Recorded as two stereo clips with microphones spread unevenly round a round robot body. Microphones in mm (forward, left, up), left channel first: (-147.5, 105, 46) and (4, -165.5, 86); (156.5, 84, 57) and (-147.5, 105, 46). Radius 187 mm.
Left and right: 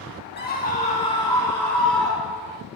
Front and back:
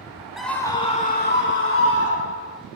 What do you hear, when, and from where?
0.4 s a scream: 90° left, 1.7 m; by 2.6 s 30° left, 3 m